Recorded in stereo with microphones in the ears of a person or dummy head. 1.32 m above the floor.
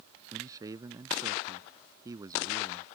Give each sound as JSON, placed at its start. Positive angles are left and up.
{"t": 0.3, "sound": "a man speaking", "side_deg": -20}